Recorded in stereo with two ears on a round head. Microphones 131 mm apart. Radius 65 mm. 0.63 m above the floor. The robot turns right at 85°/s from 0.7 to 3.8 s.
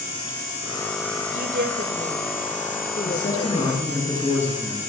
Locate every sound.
1.3 s a woman speaking: 100° right, 3 m; by 4.0 s 110° left, 3 m
3.0 s a man speaking: 100° left, 10 m; by 4.8 s 165° left, 10 m